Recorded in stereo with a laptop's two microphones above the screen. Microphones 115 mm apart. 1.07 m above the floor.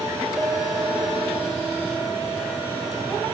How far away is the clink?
About 3 m.